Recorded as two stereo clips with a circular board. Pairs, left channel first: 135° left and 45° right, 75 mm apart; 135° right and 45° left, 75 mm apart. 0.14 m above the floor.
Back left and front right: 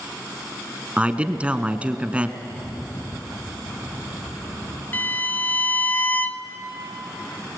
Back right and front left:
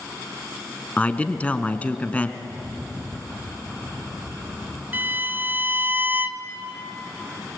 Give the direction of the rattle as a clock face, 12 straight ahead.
8 o'clock.